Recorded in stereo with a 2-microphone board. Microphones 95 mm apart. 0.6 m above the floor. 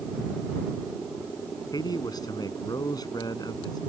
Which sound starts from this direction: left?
A man speaking, at 1.7 s.